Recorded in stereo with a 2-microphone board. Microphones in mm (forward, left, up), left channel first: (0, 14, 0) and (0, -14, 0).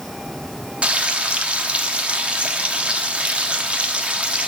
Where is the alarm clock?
I don't hear an alarm clock.